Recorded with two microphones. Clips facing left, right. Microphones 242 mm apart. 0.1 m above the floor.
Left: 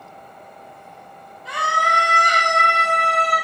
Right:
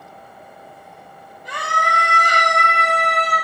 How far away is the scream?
About 2.5 m.